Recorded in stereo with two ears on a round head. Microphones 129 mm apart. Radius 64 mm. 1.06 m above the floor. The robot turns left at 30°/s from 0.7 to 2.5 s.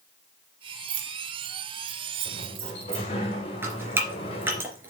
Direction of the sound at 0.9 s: 80° right.